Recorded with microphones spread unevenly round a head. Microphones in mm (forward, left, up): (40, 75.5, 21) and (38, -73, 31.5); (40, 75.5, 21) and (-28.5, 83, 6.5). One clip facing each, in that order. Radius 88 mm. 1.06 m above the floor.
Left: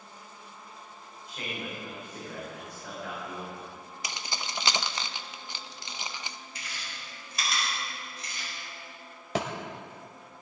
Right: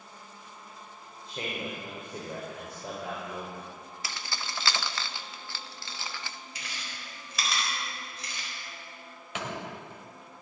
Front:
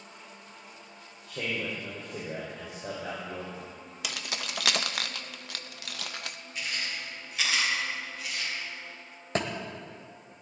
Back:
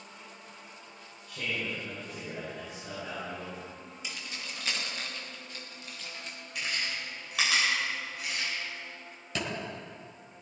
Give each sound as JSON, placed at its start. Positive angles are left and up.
{"t": 1.3, "sound": "a man speaking", "azimuth_deg": -30, "distance_m": 4.0}
{"t": 4.0, "sound": "keys jangling", "azimuth_deg": 20, "distance_m": 0.7}
{"t": 6.5, "sound": "chewing", "azimuth_deg": -125, "distance_m": 4.0}
{"t": 9.3, "sound": "a thud", "azimuth_deg": 35, "distance_m": 2.5}